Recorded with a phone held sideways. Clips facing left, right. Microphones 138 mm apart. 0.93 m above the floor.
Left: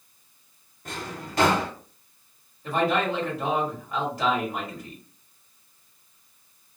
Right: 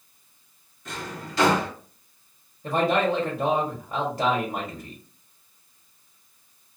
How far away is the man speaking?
About 1.0 m.